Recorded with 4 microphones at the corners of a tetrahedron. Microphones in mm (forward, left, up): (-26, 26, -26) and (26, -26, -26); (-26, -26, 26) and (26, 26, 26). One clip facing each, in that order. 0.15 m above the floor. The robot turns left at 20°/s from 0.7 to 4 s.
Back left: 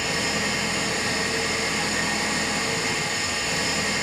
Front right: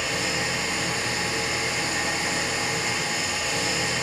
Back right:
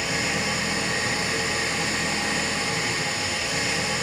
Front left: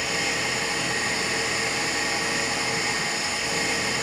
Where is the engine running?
155° left, 1.8 m; by 4.0 s 90° left, 1.8 m.